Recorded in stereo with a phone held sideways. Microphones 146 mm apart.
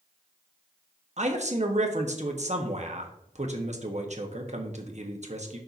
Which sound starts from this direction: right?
A man speaking, at 1.2 s.